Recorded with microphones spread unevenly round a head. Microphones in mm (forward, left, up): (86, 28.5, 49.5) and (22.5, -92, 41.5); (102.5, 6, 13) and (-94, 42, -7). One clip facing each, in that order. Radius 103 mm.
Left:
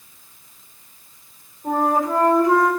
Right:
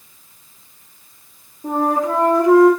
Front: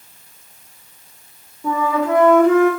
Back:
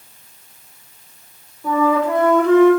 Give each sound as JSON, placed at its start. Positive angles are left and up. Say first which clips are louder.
{"t": 1.6, "sound": "a flute", "louder": "right 1 dB, back 2 dB", "azimuth_deg": -95, "distance_m": 3.0}